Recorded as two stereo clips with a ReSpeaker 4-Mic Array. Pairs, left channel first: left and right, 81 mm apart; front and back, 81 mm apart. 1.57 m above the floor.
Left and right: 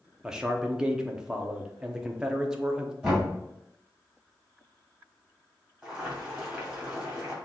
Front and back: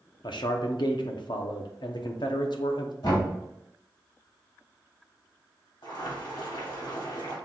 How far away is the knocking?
About 2.5 m.